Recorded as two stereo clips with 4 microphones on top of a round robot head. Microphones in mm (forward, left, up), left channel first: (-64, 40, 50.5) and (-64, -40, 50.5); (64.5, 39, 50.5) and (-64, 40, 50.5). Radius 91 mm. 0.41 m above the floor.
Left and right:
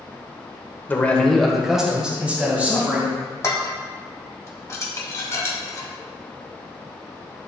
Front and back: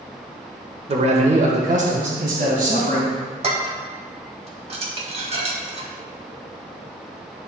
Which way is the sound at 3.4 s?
145° left.